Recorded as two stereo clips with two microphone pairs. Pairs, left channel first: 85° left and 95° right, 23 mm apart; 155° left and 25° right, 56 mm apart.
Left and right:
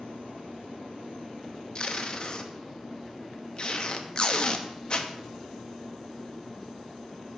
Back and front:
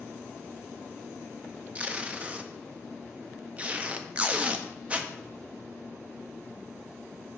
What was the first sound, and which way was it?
Tape being pulled, 40° left.